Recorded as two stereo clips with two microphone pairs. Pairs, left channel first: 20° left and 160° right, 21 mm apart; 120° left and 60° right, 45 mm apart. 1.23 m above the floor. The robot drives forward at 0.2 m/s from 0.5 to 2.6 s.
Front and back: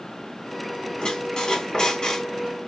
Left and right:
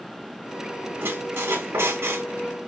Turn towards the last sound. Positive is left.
turn(degrees=-45)